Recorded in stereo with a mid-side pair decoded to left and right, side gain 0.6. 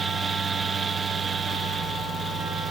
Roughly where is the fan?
Ahead right.